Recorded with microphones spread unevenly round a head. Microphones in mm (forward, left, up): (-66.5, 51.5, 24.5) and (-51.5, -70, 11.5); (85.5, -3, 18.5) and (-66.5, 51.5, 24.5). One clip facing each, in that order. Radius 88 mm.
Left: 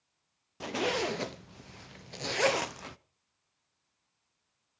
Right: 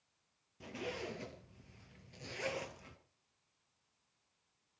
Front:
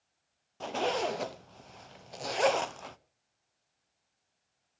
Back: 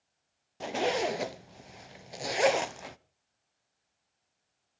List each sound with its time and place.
0.6 s a zipper: 85° left, 0.6 m